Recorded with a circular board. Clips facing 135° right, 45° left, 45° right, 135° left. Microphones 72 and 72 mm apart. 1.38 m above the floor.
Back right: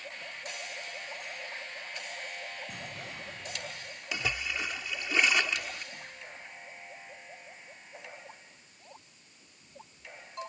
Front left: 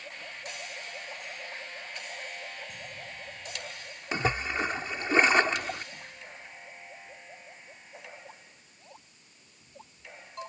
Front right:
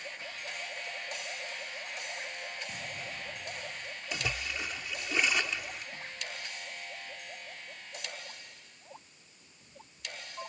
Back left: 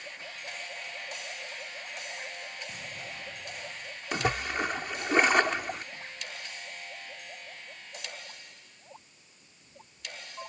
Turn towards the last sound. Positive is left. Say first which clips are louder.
# front left 6 dB, back left 8 dB
turn(degrees=95)